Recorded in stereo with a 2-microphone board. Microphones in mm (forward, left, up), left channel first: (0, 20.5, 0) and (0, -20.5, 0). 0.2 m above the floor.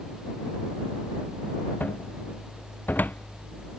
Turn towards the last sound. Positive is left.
turn(degrees=45)  # may be behind; listen again after turning